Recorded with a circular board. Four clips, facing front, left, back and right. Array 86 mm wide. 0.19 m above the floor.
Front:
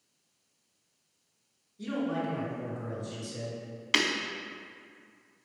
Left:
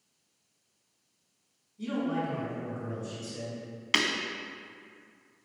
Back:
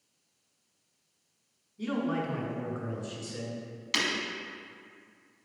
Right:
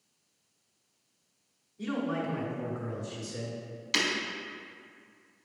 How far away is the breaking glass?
About 0.9 m.